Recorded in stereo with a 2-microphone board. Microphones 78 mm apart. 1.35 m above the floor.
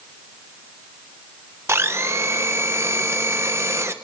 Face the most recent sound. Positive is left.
turn(degrees=-35)  # may be behind; listen again after turning